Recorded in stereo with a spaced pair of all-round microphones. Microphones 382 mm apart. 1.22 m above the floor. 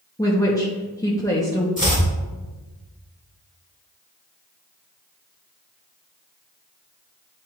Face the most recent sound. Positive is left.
turn(degrees=20)  # may be behind; listen again after turning